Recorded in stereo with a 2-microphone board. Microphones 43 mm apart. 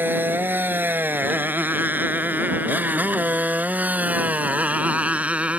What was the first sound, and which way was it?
A motorcycle, 55° right (ahead or behind).